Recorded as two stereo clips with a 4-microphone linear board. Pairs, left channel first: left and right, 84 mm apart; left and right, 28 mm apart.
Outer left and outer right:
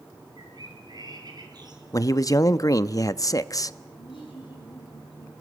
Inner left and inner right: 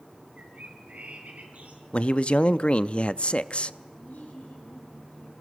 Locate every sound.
0.4 s a bird: 55° right (ahead or behind), 4.5 m
1.9 s a man speaking: 45° left (ahead or behind), 0.6 m
4.0 s laughter: 85° left, 7.5 m